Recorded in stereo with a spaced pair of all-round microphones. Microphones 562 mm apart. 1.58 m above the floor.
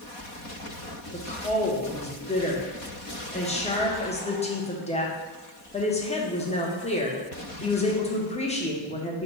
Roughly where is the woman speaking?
Centre.